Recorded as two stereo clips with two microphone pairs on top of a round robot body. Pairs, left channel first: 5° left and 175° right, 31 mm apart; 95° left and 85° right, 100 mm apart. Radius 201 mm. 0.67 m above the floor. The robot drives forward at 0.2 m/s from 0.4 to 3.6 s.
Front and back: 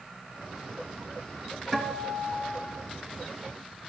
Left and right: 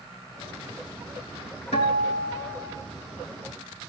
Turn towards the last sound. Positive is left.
turn(degrees=115)